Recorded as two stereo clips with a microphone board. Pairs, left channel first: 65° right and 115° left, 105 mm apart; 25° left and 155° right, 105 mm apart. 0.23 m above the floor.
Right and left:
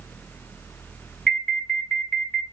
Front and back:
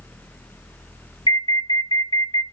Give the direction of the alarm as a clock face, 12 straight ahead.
12 o'clock.